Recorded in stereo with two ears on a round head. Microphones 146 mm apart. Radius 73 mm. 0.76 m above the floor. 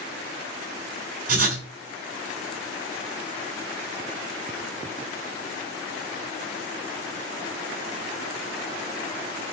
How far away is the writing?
About 3.5 m.